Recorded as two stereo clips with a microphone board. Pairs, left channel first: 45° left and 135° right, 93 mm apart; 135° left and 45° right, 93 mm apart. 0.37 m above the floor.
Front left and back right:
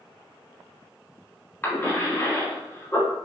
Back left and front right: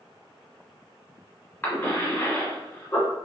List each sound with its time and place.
1.6 s a cough: 85° left, 1.6 m